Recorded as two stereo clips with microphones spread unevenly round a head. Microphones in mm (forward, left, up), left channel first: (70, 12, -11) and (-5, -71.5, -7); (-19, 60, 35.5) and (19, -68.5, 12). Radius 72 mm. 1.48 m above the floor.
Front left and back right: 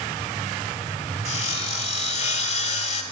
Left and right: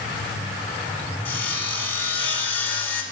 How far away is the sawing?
About 2 m.